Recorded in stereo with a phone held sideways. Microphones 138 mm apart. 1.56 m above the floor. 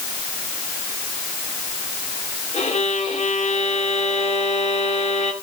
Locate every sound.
2.5 s a violin: 55° left (ahead or behind), 3 m